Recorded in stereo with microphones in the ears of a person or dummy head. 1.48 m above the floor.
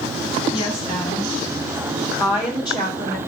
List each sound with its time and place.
0.5 s a woman speaking: 20° left (ahead or behind), 8 m